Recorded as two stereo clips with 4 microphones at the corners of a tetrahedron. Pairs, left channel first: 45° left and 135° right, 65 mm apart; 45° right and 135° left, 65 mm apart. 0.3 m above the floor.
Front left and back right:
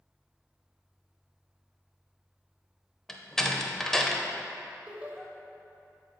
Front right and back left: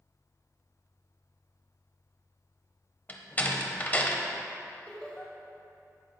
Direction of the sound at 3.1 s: 30° right.